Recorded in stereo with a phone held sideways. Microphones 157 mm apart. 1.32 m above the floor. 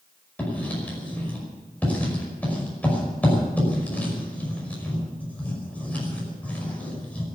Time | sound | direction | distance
0.4 | writing | 10° left (ahead or behind) | 5.5 m